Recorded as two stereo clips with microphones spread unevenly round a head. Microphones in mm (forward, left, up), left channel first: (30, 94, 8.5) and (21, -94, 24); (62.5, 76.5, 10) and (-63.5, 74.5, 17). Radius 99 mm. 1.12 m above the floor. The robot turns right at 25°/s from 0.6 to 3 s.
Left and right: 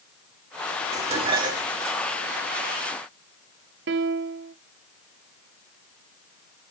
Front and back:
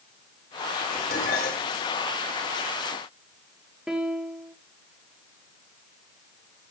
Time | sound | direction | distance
0.9 | dishes clattering | 40° right | 2 m
3.9 | a piano | 90° right | 0.8 m